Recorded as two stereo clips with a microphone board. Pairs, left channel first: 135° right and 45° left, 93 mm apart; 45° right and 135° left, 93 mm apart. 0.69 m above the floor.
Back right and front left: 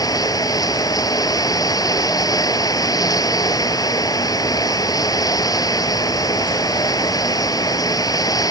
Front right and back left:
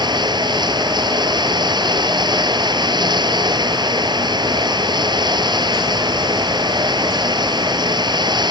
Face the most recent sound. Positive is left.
turn(degrees=175)